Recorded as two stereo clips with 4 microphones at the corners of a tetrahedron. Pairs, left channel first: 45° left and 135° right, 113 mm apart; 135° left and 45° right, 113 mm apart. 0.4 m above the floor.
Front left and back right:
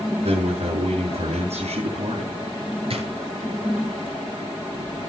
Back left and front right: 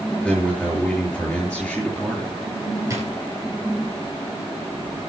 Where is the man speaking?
140° right, 6.5 m.